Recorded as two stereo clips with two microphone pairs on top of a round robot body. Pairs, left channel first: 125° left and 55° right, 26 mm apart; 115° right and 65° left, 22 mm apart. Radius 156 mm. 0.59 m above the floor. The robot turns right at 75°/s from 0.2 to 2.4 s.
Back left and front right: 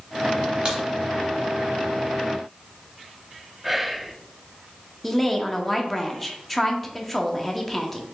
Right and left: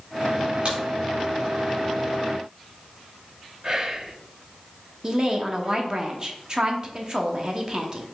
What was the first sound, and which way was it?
A crack, 10° left.